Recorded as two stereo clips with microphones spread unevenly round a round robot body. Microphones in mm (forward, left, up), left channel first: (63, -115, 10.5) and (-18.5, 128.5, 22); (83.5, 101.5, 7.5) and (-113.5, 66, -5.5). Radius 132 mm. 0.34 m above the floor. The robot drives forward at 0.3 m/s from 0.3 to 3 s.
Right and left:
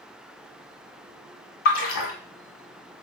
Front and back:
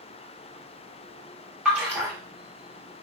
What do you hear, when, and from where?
1.6 s a splash: 85° right, 0.8 m; by 2.1 s 100° right, 0.8 m